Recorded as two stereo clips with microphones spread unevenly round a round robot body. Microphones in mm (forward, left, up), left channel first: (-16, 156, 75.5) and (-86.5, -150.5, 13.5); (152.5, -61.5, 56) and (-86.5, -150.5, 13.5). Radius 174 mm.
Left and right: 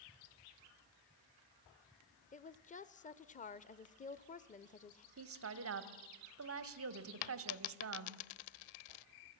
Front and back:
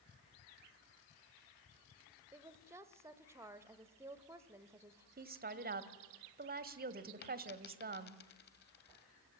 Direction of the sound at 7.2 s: 85° left.